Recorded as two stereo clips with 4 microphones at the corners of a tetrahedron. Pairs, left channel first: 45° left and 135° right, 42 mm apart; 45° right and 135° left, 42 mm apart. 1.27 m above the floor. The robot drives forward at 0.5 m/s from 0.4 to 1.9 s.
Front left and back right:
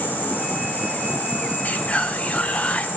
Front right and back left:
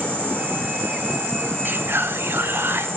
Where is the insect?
90° left, 9 m; by 3.0 s 95° left, 9 m.